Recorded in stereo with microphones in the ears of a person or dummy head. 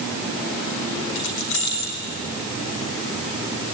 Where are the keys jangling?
65° left (ahead or behind), 3.5 m.